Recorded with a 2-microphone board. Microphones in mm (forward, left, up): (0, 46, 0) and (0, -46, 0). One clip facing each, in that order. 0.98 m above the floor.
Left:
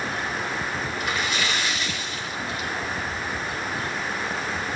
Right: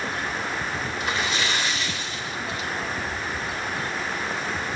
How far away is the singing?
I don't hear singing.